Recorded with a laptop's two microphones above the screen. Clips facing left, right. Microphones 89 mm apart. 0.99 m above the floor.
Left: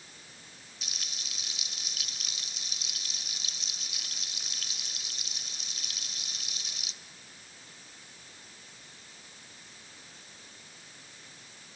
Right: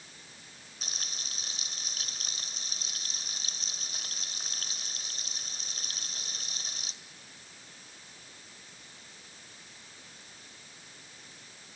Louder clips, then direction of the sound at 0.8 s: Right 2 dB; 40° right (ahead or behind).